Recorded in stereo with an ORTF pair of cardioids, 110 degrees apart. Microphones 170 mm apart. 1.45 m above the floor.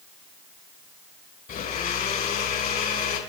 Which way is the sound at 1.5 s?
60° left.